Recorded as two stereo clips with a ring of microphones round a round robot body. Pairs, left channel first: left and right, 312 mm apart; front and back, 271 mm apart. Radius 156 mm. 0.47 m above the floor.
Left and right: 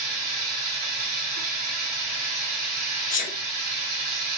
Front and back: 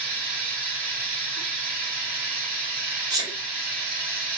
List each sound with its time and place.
0.0 s running water: 115° right, 2 m
3.1 s a sneeze: 120° left, 0.9 m